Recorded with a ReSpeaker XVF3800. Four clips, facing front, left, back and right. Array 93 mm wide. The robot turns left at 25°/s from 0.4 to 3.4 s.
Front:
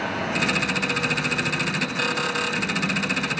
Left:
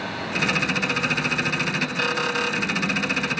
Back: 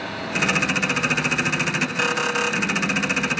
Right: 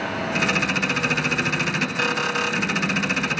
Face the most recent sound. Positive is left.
No sound to turn to.